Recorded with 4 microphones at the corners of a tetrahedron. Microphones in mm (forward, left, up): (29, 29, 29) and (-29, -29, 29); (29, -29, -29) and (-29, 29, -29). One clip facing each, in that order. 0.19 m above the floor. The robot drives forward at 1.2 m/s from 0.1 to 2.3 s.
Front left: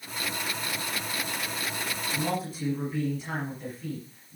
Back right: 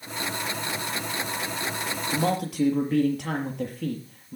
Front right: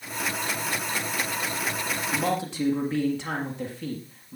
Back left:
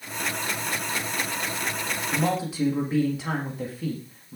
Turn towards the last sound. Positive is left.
turn(degrees=-140)